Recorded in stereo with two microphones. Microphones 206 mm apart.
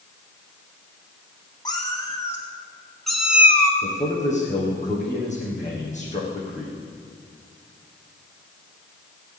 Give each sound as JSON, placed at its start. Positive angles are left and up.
{"t": 1.6, "sound": "a cat meowing", "side_deg": 20, "distance_m": 2.5}
{"t": 3.8, "sound": "a man speaking", "side_deg": 35, "distance_m": 5.0}